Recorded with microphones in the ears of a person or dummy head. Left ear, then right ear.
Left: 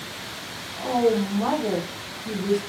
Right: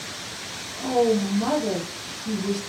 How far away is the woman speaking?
About 1.1 m.